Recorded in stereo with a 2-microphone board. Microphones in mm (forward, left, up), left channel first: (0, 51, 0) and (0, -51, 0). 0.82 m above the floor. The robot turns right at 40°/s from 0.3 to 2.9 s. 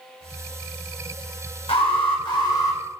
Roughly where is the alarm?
Left.